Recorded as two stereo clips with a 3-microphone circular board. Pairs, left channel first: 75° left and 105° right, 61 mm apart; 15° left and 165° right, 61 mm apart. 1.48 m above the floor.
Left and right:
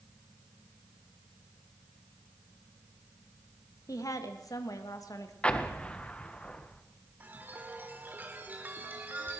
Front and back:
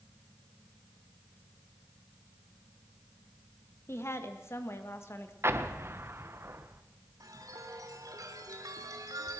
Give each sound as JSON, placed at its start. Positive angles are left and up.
{"t": 3.9, "sound": "a woman speaking", "azimuth_deg": 60, "distance_m": 2.0}
{"t": 5.4, "sound": "an explosion", "azimuth_deg": 145, "distance_m": 1.3}
{"t": 7.2, "sound": "a chime", "azimuth_deg": -160, "distance_m": 2.5}